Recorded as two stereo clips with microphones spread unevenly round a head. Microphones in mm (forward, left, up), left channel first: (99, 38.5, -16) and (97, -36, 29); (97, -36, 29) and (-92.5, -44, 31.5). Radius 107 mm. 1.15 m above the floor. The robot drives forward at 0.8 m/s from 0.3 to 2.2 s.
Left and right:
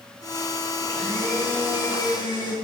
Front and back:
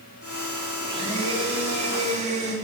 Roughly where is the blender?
Behind right.